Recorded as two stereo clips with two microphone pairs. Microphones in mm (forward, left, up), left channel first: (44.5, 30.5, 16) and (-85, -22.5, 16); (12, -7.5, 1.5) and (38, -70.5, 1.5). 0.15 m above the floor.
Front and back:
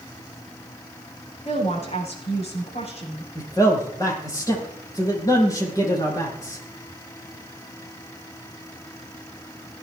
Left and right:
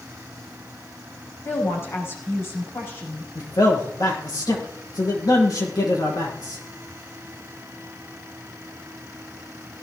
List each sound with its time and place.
1.4 s a woman speaking: 60° left, 10 m
3.4 s a man speaking: 90° left, 6 m